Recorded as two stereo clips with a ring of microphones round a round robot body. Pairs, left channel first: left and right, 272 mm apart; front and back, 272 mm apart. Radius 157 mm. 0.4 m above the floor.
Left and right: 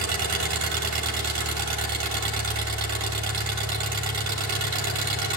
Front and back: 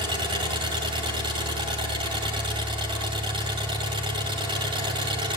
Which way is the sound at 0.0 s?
105° right.